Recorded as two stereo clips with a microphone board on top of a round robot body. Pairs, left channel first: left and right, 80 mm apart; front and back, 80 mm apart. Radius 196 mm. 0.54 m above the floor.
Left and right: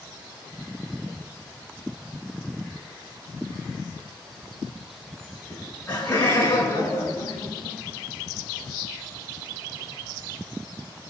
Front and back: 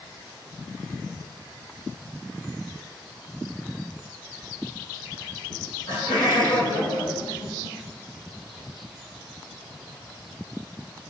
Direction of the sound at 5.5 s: 20° left.